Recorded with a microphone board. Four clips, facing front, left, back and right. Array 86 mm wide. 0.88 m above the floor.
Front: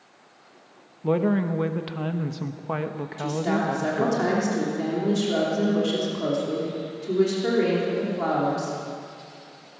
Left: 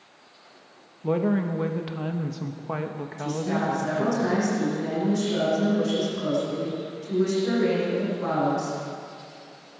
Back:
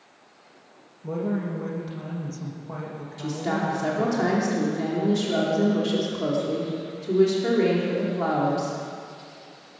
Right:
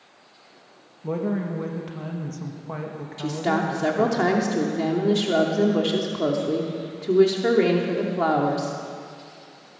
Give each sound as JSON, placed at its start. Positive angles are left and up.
{"t": 1.0, "sound": "a woman speaking", "azimuth_deg": 20, "distance_m": 1.1}
{"t": 3.2, "sound": "a woman speaking", "azimuth_deg": -90, "distance_m": 2.5}